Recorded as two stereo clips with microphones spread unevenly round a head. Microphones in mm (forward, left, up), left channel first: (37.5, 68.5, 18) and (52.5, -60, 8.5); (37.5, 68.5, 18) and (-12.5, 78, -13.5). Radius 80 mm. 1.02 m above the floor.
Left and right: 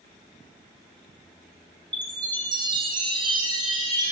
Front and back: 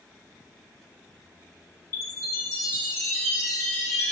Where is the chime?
30° right, 1.4 m.